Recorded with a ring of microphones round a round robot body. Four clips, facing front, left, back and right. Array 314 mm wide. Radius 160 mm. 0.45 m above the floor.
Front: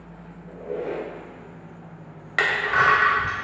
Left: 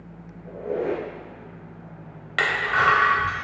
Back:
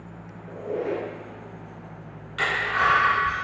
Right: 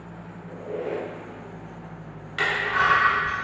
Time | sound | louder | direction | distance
0.5 | a squeak | left 5 dB, back 2 dB | 110° left | 2 m
2.4 | crushing | left 1 dB, front 3 dB | 35° left | 2.5 m